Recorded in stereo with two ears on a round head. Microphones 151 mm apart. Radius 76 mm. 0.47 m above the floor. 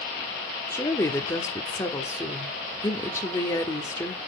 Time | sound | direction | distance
0.7 | a woman speaking | 20° left (ahead or behind) | 1.3 m